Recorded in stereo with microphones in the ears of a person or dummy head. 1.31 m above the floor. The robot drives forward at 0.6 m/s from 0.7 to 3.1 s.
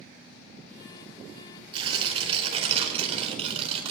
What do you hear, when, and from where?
1.7 s tearing paper: 30° right (ahead or behind), 4.5 m; by 3.9 s 40° right (ahead or behind), 4 m